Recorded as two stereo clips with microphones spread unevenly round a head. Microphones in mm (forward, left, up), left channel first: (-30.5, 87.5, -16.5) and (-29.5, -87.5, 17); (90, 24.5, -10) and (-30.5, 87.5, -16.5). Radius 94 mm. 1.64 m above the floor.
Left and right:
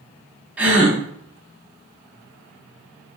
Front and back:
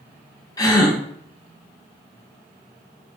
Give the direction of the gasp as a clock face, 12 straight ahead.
1 o'clock.